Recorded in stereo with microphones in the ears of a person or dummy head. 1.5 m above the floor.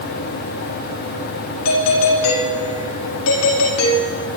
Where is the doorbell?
75° left (ahead or behind), 4.5 m.